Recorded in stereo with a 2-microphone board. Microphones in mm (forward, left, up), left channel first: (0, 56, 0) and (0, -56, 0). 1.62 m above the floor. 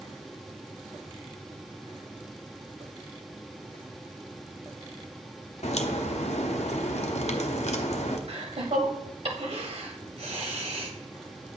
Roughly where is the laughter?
Right.